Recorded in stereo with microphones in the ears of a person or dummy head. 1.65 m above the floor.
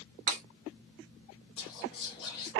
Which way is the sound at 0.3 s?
50° right (ahead or behind).